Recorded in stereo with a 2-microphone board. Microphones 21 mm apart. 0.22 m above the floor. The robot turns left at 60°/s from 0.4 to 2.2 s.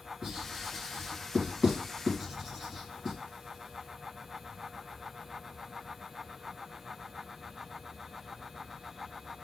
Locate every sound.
0.2 s writing: 35° right (ahead or behind), 2.5 m; by 3.2 s 15° right (ahead or behind), 2.5 m